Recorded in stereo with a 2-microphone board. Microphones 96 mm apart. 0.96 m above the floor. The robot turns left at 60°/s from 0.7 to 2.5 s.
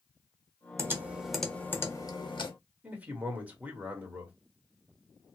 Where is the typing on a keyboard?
30° right (ahead or behind), 0.9 m; by 2.5 s 60° left (ahead or behind), 0.9 m.